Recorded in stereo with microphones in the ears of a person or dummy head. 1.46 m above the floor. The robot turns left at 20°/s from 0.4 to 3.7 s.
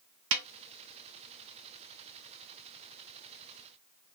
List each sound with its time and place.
0.3 s a snare drum: 70° right (ahead or behind), 0.6 m